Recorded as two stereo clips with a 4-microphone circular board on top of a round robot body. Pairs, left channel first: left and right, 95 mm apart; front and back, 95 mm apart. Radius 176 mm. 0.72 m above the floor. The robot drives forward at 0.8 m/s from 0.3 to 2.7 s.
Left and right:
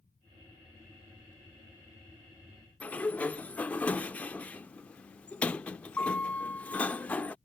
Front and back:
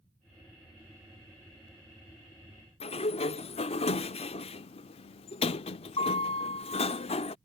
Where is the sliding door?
15° left.